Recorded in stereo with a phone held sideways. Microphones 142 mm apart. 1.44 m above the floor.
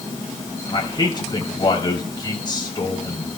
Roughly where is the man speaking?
Left.